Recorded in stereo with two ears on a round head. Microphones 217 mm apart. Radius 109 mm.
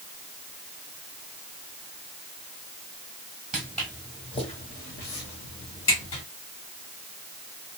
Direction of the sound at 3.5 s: 5° right (ahead or behind).